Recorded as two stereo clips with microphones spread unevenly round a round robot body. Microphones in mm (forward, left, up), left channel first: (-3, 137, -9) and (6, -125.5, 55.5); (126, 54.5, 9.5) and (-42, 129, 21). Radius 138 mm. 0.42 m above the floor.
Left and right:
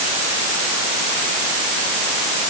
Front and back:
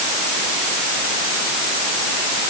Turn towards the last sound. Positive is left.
No sound to turn to.